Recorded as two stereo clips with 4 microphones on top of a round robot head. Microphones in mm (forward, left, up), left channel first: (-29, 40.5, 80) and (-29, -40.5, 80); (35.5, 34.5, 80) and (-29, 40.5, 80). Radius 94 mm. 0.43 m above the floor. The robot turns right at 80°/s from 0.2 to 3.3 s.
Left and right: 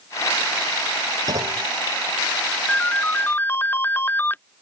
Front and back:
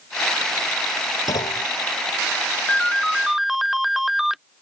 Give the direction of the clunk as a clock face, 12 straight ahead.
2 o'clock.